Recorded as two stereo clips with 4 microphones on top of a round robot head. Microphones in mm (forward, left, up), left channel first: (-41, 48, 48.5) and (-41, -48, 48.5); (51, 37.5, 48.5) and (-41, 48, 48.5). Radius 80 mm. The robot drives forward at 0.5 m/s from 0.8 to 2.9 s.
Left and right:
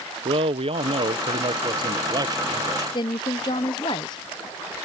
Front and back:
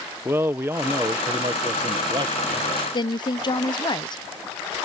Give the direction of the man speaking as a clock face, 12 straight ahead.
4 o'clock.